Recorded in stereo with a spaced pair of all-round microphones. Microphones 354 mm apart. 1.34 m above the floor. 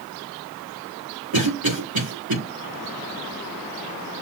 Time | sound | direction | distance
1.3 | a cough | 70° right (ahead or behind) | 1.8 m